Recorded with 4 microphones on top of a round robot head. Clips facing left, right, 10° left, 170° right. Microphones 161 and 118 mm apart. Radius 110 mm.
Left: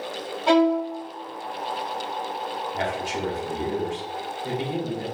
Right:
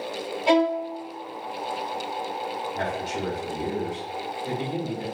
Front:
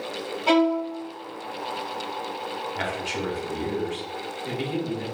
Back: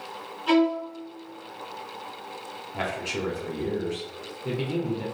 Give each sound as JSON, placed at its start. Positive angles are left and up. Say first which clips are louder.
{"t": 0.5, "sound": "a violin", "louder": "left 2 dB, front 1 dB", "azimuth_deg": -20, "distance_m": 0.7}
{"t": 2.7, "sound": "a man speaking", "louder": "left 2 dB, back 3 dB", "azimuth_deg": 140, "distance_m": 1.2}